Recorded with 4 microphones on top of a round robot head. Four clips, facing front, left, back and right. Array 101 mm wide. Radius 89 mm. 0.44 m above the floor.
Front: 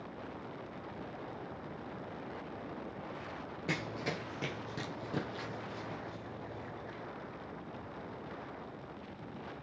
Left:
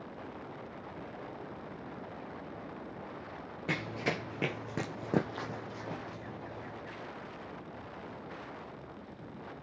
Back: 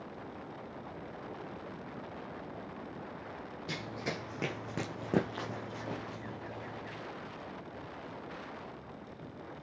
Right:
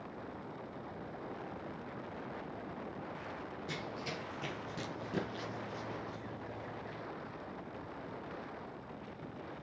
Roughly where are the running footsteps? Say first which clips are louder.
Left 10 dB, front 2 dB; ahead left.